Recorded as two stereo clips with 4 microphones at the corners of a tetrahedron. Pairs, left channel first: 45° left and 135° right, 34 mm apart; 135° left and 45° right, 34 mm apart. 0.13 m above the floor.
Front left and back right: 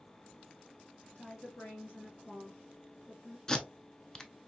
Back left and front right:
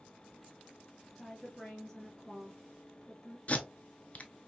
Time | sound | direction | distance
1.1 | a woman speaking | 50° left | 1.9 m
3.5 | tape being pulled | 105° left | 0.6 m